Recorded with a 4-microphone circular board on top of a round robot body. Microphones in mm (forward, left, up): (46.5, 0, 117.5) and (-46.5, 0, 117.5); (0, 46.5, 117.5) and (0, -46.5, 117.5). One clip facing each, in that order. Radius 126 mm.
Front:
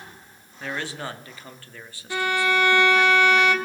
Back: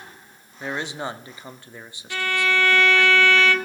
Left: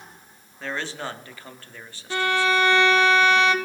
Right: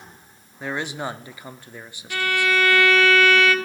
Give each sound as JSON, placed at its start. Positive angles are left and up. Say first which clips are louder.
{"t": 0.6, "sound": "a man speaking", "louder": "back 2 dB, right 3 dB", "azimuth_deg": -145, "distance_m": 1.1}
{"t": 2.1, "sound": "a violin", "louder": "front 1 dB, left 1 dB", "azimuth_deg": 55, "distance_m": 1.3}